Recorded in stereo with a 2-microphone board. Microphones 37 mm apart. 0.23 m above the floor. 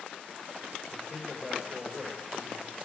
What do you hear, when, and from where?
0.9 s a man speaking: 5° right (ahead or behind), 9.5 m